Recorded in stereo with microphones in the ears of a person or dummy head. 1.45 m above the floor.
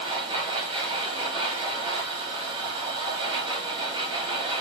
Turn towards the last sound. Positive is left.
turn(degrees=-25)  # may be behind; listen again after turning